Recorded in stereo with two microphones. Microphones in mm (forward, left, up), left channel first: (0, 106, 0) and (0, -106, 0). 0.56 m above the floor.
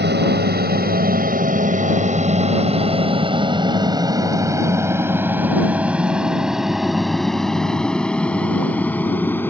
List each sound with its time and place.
0.0 s an aircraft: 55° right (ahead or behind); by 9.5 s 10° left (ahead or behind)